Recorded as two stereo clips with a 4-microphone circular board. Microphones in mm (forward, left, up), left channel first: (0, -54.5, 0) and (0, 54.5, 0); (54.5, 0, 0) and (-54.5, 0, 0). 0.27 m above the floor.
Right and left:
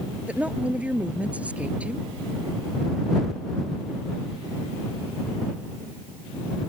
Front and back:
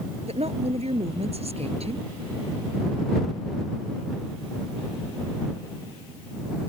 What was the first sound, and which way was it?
A woman speaking, 170° left.